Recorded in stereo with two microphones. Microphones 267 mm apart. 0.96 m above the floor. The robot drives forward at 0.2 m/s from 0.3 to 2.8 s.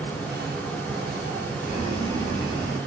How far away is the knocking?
No knocking in this recording.